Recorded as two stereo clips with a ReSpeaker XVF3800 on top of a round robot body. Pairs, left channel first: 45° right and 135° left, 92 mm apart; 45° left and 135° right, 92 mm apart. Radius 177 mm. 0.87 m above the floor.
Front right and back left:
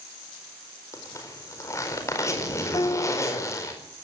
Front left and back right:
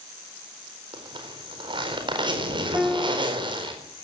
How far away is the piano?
About 0.7 m.